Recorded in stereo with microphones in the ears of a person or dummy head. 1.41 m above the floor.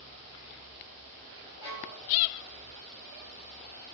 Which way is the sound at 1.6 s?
30° right (ahead or behind).